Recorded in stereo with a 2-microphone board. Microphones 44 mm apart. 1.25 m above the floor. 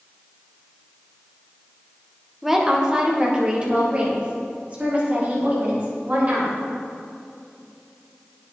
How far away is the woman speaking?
About 0.9 m.